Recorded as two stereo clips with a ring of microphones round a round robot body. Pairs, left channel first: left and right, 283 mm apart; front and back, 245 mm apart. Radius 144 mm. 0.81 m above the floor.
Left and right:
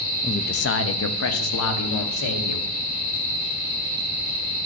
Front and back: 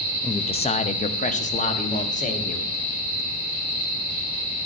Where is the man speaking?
50° left, 0.5 m; by 2.7 s 60° left, 2 m.